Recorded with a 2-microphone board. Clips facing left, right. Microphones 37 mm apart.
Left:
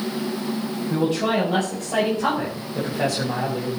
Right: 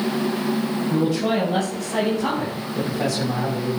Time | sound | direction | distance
0.9 | a man speaking | 40° left (ahead or behind) | 5.5 m